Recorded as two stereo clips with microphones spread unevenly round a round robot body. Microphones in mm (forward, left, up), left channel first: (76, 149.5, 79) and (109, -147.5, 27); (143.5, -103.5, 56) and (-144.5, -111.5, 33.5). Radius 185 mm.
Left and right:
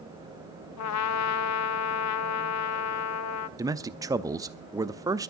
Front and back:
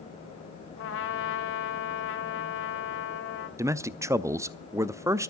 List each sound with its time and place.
0.8 s a trumpet: 60° left, 0.7 m
3.6 s a man speaking: 120° right, 0.6 m